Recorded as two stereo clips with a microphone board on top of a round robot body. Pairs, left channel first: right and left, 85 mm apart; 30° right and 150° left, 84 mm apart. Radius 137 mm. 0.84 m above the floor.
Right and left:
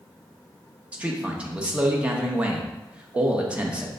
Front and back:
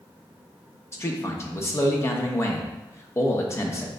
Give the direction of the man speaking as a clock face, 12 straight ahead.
11 o'clock.